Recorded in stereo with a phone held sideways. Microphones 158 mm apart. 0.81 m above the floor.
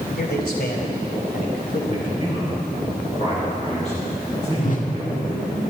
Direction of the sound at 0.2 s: 80° left.